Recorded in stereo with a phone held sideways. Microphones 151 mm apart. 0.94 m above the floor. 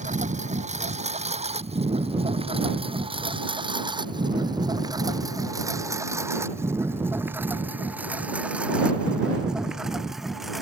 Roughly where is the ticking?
No ticking in this recording.